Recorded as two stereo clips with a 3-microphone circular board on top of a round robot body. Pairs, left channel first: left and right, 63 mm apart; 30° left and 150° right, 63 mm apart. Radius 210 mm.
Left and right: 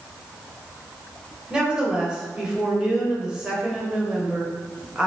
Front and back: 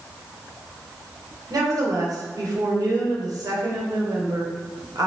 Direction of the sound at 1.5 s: 165° right.